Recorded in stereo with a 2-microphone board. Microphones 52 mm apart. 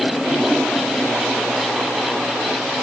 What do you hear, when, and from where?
Only background noise.